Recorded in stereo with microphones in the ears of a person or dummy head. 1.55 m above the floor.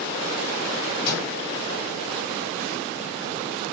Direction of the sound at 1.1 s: 60° left (ahead or behind).